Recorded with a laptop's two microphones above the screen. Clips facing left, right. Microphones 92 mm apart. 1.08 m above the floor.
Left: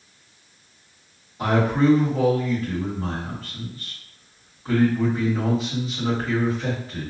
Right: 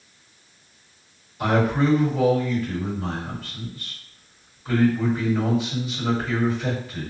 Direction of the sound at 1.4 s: 30° left (ahead or behind).